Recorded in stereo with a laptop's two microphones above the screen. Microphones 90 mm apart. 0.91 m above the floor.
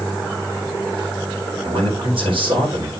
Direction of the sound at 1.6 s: 80° right.